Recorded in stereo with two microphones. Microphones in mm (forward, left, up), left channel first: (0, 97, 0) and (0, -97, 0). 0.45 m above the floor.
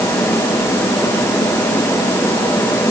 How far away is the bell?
I don't hear a bell.